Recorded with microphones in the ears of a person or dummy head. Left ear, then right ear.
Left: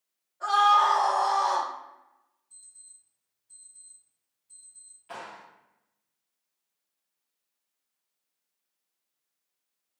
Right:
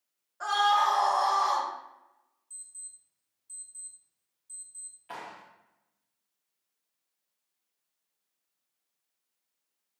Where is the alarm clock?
40° right (ahead or behind), 1.9 m.